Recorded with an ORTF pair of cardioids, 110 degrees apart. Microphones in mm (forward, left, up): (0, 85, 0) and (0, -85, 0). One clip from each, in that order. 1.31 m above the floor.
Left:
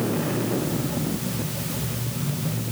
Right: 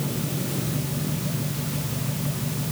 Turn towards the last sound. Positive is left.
No sound to turn to.